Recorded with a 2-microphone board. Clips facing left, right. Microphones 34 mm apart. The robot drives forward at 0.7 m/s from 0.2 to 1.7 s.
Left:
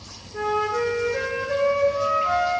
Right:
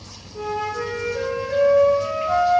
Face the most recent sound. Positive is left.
turn(degrees=50)  # may be behind; listen again after turning